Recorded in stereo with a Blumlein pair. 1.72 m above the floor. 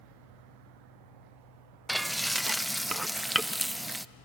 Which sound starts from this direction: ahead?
Frying, at 1.9 s.